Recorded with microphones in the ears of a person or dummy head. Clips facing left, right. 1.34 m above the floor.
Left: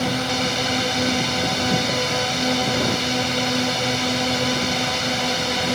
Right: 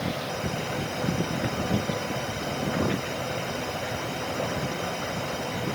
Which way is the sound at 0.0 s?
75° left (ahead or behind).